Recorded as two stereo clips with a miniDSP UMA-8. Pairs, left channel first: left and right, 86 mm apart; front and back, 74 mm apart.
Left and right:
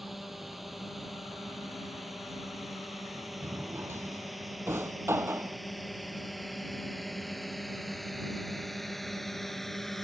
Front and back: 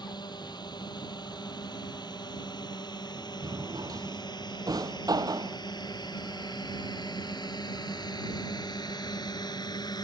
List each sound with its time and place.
0.0 s a drone: straight ahead; by 10.0 s 5° left
3.4 s a drawer: 150° right